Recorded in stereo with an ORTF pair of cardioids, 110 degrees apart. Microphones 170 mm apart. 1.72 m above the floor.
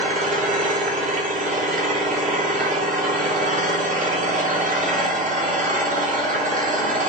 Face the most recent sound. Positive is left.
turn(degrees=-50)